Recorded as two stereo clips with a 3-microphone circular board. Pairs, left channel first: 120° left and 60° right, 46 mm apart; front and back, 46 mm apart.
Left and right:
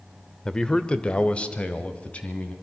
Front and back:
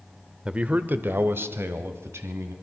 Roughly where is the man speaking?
Behind.